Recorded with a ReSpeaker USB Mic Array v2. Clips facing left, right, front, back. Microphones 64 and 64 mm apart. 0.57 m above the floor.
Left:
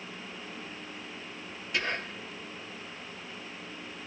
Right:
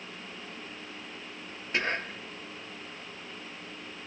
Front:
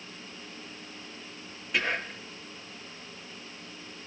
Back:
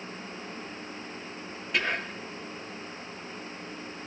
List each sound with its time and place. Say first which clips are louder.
1.7 s whispering: right 2 dB, even; 85° right, 0.7 m